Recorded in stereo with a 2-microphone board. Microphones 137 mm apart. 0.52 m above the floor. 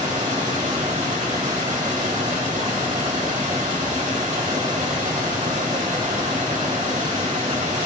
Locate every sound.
0.0 s running water: 70° right (ahead or behind), 2.5 m